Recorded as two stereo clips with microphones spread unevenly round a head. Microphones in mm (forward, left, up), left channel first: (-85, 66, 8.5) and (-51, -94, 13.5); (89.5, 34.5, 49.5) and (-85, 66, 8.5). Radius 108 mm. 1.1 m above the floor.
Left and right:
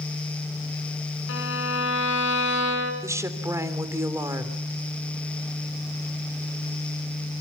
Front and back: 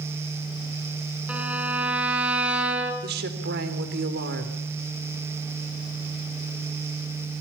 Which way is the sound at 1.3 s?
85° left.